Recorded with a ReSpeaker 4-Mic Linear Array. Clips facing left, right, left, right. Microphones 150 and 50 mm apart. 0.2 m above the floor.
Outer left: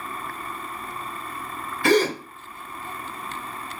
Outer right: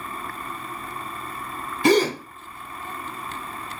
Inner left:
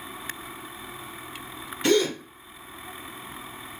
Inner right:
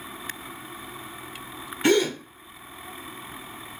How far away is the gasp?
About 1.3 m.